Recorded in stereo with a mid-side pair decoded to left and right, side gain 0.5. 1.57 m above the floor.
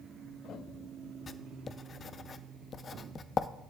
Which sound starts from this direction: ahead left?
Writing, at 1.3 s.